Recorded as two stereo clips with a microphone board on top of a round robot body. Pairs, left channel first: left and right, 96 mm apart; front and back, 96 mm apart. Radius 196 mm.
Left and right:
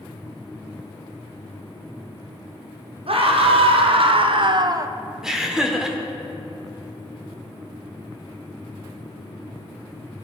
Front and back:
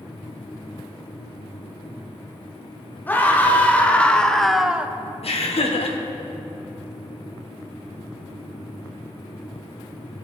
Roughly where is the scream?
Right.